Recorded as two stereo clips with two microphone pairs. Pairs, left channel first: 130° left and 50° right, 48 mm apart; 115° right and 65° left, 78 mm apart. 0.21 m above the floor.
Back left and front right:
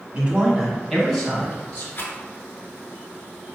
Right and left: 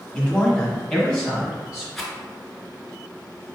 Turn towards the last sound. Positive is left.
turn(degrees=160)